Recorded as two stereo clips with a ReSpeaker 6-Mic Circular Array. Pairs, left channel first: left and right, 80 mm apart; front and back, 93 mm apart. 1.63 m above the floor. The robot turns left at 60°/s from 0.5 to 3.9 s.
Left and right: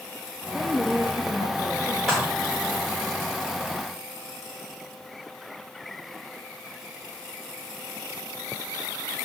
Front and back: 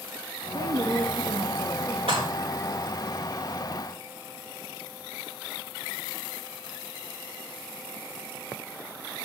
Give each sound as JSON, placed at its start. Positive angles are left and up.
{"t": 0.5, "sound": "a woman speaking", "azimuth_deg": -165, "distance_m": 1.1}
{"t": 2.1, "sound": "dishes clattering", "azimuth_deg": 175, "distance_m": 3.0}